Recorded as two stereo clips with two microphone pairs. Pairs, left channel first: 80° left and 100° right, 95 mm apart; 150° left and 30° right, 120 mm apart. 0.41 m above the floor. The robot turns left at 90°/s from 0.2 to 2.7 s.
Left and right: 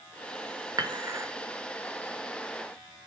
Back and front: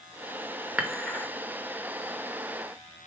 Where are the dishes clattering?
95° right, 0.8 m; by 1.3 s 140° right, 0.8 m.